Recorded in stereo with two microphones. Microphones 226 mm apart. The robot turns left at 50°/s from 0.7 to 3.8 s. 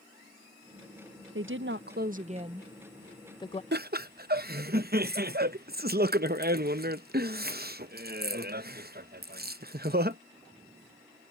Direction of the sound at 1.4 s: 100° right.